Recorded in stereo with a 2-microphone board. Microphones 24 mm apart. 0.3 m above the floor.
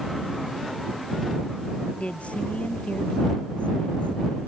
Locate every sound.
2.0 s a woman speaking: 70° left (ahead or behind); by 4.5 s 60° left (ahead or behind)